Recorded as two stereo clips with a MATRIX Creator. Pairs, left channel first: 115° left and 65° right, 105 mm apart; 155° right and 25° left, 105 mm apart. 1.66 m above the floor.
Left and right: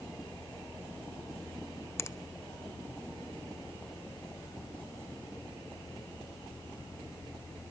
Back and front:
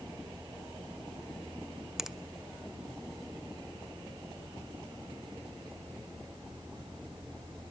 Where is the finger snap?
105° left, 0.5 m.